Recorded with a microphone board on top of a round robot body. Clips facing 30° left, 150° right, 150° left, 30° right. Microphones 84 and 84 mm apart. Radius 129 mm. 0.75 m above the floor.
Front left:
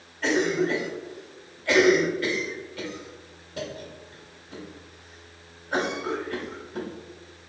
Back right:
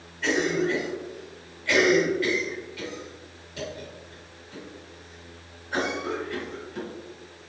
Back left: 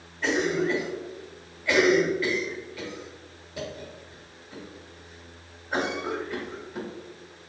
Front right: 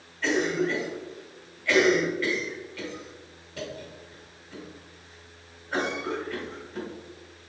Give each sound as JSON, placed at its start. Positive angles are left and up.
{"t": 0.2, "sound": "a cough", "azimuth_deg": 75, "distance_m": 1.9}